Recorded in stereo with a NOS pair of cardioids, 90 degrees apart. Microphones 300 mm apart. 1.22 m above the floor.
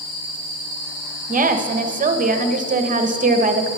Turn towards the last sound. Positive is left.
turn(degrees=-25)